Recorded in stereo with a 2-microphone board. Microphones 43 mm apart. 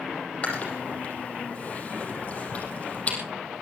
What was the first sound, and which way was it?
Chewing, 35° left (ahead or behind).